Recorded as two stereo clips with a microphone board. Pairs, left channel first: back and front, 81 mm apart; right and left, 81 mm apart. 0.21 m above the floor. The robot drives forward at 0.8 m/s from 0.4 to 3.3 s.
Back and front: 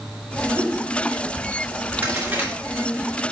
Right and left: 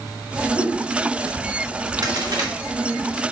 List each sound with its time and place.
0.5 s a whoosh: 30° left, 3 m
2.0 s a crack: 65° left, 2.5 m; by 2.5 s 75° left, 2.5 m